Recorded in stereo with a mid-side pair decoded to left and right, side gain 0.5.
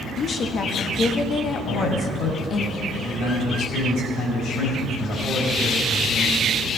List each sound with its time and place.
0.2 s a woman speaking: 50° left, 1.4 m
1.7 s a man speaking: 70° left, 5.5 m